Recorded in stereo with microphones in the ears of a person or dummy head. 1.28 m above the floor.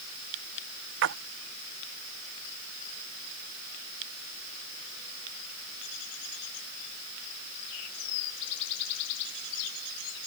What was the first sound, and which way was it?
A splash, 60° right (ahead or behind).